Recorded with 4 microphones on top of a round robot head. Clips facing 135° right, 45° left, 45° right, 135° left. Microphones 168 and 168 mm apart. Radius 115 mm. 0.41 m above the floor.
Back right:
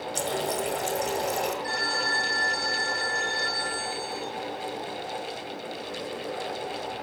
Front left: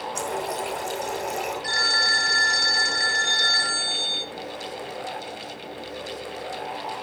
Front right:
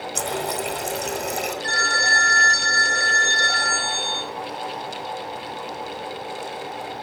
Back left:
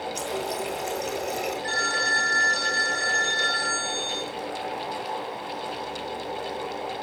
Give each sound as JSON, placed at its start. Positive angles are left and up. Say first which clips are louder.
{"t": 0.1, "sound": "a running tap", "louder": "back right 1 dB, front right 5 dB", "azimuth_deg": -80, "distance_m": 2.5}
{"t": 1.6, "sound": "a phone ringing", "louder": "even, front right 2 dB", "azimuth_deg": 30, "distance_m": 1.9}